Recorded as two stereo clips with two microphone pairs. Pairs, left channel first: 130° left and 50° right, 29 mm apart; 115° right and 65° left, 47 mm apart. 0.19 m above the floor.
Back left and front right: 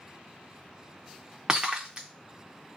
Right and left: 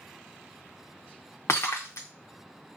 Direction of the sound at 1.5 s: 110° right.